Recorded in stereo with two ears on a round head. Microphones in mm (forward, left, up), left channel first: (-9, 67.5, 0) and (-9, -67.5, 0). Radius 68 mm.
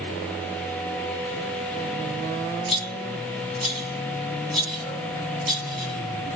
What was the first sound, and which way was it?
A rattle, centre (ahead or behind).